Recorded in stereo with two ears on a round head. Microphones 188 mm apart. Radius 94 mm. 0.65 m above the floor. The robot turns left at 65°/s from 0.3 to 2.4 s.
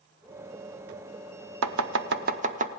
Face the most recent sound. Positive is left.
turn(degrees=-35)  # may be behind; listen again after turning